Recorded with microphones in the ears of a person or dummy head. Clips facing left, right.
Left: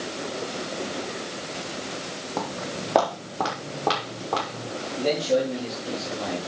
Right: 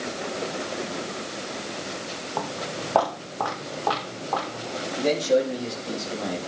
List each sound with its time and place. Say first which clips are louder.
2.4 s footsteps: even; 30° left (ahead or behind), 3 m; by 4.7 s 40° left (ahead or behind), 6 m
5.0 s a man speaking: right 1 dB; centre (ahead or behind), 4 m